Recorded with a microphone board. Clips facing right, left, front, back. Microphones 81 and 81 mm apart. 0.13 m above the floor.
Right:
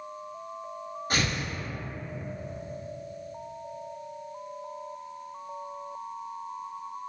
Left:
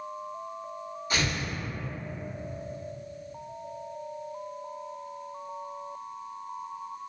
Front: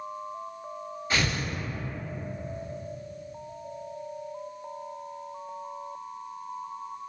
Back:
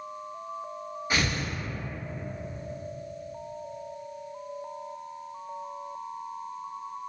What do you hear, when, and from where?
1.1 s tearing paper: 105° right, 1.1 m